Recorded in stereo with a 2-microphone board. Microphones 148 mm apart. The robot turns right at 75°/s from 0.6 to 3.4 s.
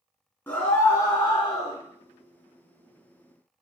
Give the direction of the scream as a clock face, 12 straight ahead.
11 o'clock.